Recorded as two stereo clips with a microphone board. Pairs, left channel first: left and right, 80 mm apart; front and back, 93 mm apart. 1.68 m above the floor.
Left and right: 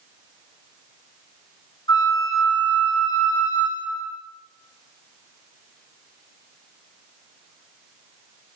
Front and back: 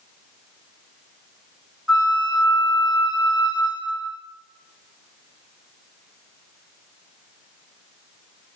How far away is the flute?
About 1.5 m.